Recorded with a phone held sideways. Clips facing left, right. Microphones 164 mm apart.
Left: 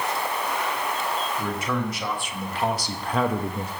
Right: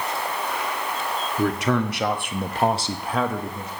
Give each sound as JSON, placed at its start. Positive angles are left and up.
{"t": 1.4, "sound": "a man speaking", "side_deg": -70, "distance_m": 1.8}